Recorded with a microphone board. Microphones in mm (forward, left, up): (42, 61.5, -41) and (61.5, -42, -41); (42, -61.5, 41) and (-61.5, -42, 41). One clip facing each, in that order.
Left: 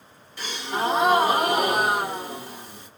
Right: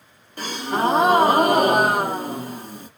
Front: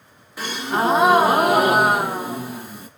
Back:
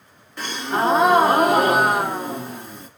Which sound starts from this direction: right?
A gasp, at 0.4 s.